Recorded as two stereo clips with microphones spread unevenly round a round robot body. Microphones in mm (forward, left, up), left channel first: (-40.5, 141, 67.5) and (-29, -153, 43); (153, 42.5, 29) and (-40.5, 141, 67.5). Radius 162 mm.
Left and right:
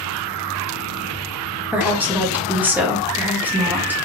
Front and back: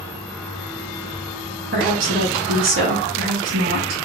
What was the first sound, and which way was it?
A woman speaking, 170° right.